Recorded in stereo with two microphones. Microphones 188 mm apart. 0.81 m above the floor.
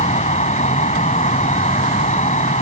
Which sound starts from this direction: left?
An insect, at 0.0 s.